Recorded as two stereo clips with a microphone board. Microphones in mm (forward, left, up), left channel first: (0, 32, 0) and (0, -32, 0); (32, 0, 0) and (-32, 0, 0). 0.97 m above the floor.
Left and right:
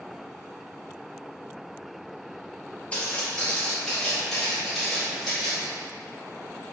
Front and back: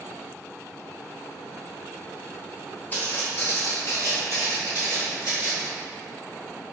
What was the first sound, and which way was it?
Footsteps, 40° left.